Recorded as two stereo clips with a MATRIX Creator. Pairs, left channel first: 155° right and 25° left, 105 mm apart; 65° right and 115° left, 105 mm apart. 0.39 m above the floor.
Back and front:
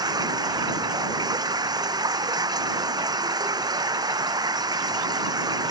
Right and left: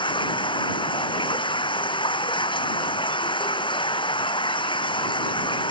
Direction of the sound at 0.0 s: 30° right.